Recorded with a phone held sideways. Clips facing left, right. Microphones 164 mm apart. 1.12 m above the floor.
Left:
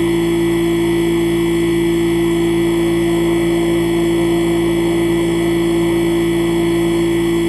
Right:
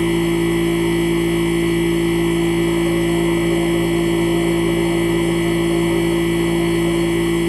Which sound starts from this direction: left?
A machine running, at 0.0 s.